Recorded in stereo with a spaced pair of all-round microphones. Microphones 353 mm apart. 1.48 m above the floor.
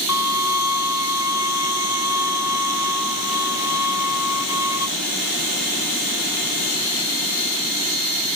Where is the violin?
50° left (ahead or behind), 0.6 m.